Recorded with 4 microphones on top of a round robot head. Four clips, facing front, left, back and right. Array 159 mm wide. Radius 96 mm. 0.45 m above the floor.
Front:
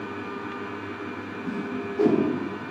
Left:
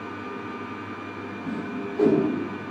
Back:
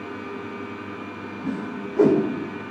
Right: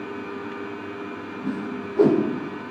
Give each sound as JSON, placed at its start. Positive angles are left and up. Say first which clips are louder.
{"t": 1.4, "sound": "a whoosh", "louder": "right 2 dB, back 1 dB", "azimuth_deg": -140, "distance_m": 1.8}